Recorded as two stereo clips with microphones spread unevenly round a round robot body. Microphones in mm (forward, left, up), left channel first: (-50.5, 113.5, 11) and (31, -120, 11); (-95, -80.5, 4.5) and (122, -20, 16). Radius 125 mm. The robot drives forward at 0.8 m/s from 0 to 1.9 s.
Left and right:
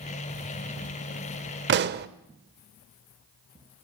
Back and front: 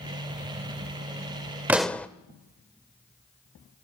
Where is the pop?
65° right, 0.7 m; by 2.1 s 85° right, 0.7 m.